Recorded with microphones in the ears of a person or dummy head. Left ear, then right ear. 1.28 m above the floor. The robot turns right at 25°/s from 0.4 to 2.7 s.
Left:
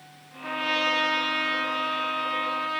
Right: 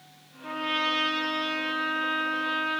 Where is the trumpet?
90° left, 0.8 m; by 2.8 s 145° left, 0.8 m.